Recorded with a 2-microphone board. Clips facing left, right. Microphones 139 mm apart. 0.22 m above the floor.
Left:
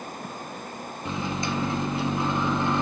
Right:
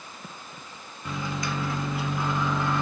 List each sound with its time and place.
1.1 s a microwave: 25° left (ahead or behind), 2 m